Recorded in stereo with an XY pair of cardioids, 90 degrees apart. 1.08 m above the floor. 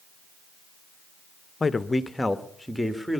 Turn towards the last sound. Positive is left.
turn(degrees=0)